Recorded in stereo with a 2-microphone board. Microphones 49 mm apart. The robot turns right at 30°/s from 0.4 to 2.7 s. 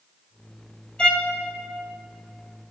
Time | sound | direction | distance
1.0 | a violin | 20° left (ahead or behind) | 1.4 m